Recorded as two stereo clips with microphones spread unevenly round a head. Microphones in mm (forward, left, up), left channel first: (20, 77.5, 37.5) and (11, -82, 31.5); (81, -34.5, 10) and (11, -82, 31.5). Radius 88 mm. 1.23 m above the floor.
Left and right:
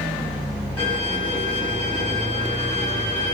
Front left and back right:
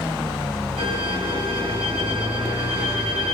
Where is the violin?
165° left, 6.5 m.